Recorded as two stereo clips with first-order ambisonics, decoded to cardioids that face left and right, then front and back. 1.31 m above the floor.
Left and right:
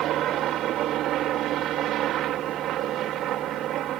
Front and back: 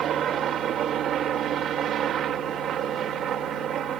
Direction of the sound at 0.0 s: 130° right.